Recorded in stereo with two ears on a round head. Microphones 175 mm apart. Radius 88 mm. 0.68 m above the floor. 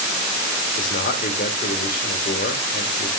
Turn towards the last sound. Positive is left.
turn(degrees=45)  # may be behind; listen again after turning